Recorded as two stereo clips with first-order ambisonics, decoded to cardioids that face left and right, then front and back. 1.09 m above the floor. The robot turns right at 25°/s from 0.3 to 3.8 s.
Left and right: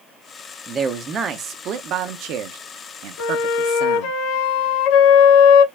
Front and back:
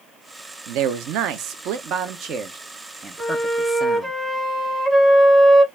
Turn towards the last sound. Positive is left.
turn(degrees=90)